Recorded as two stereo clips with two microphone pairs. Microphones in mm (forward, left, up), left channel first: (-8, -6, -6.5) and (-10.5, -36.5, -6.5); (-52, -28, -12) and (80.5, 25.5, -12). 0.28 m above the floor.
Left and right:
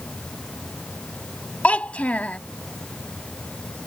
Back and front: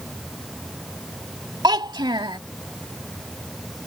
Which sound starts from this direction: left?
A child speaking, at 1.6 s.